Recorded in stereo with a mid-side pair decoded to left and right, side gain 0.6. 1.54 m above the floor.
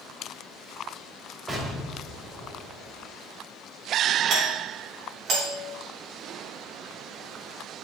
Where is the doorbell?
60° right, 4 m.